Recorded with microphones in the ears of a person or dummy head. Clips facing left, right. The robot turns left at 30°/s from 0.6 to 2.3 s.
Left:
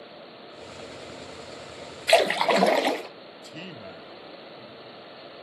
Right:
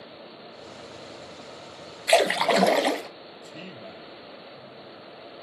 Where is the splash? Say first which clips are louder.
Even; 5° left (ahead or behind), 0.6 m; by 3.1 s 5° right (ahead or behind), 0.6 m.